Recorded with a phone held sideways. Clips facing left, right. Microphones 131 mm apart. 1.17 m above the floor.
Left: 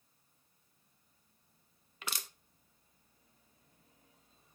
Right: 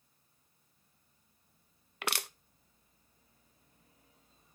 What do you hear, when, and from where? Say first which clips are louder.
2.0 s crushing: right 7 dB; 70° right (ahead or behind), 0.5 m